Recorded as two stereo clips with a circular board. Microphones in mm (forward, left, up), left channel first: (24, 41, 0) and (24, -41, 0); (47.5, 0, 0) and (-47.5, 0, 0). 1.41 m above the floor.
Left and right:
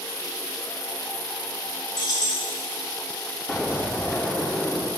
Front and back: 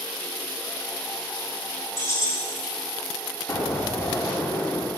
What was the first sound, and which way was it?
Keys jangling, 60° left.